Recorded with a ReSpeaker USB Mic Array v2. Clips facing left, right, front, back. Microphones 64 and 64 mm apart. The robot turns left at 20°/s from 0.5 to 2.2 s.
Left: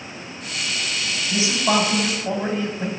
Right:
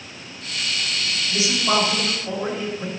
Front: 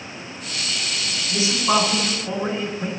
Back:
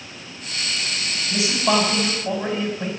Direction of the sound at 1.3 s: 155° left.